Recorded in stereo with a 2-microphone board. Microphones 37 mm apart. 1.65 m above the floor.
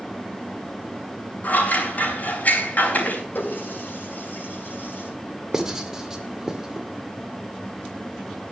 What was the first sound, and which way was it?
Scissors, 45° left (ahead or behind).